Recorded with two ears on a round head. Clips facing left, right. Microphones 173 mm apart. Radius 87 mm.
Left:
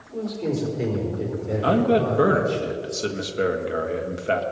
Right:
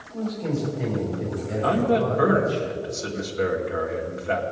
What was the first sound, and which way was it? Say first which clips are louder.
A man speaking: left 1 dB; 80° left.